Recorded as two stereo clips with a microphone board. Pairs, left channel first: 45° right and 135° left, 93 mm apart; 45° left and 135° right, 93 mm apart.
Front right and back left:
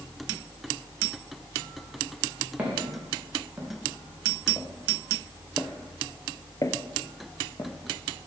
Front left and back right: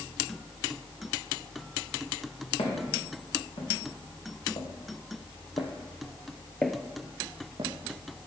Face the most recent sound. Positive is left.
turn(degrees=-100)